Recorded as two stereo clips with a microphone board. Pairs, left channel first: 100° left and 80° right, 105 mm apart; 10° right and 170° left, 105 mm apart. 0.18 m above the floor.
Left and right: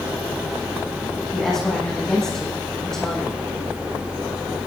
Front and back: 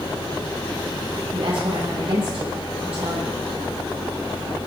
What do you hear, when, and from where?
1.3 s a woman speaking: 175° right, 7.5 m